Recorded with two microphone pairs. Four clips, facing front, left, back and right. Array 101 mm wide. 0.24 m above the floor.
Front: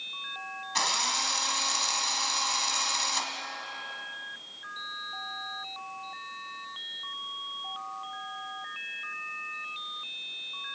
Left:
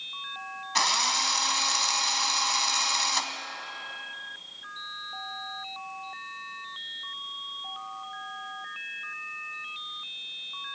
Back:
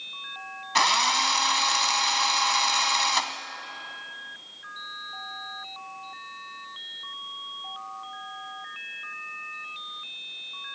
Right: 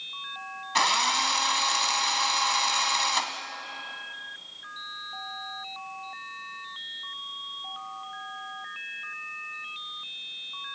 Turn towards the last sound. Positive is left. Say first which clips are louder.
# right 3 dB, back 9 dB
turn(degrees=-165)